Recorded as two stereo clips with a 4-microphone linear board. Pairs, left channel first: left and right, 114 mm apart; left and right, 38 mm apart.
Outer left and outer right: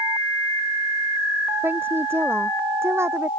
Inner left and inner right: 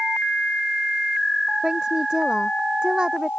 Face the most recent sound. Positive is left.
turn(degrees=-25)  # may be behind; listen again after turning